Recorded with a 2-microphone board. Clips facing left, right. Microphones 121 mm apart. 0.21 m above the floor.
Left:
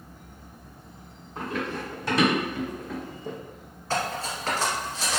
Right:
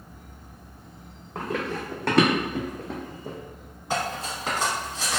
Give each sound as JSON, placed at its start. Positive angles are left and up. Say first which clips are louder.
{"t": 1.4, "sound": "running footsteps", "louder": "right 2 dB", "side_deg": -85, "distance_m": 1.1}
{"t": 3.9, "sound": "cutlery clinking", "louder": "even", "side_deg": -15, "distance_m": 1.2}